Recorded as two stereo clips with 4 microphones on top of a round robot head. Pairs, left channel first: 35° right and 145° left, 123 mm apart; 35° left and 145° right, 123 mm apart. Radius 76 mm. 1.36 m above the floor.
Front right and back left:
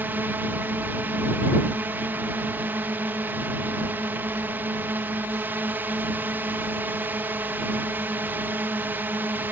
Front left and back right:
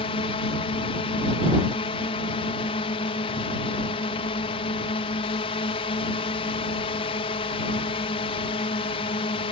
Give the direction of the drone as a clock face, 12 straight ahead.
10 o'clock.